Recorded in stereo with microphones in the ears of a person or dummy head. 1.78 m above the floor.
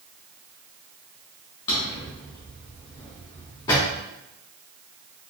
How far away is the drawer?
About 1.0 m.